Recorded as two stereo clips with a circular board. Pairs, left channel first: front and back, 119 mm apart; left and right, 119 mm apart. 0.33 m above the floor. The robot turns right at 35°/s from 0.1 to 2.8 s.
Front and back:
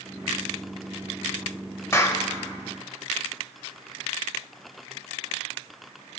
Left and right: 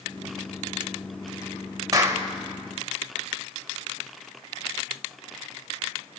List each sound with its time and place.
1.9 s a clap: 50° right, 1.0 m; by 2.3 s 40° right, 1.0 m